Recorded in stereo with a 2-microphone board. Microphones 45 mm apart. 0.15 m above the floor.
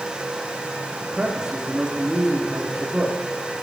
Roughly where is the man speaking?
Centre.